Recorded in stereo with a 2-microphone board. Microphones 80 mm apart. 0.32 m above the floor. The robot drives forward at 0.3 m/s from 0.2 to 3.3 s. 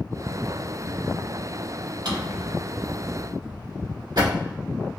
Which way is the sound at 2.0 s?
75° right (ahead or behind).